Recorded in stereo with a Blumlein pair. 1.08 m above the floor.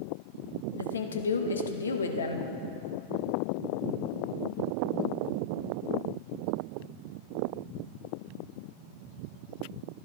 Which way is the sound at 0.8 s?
70° left.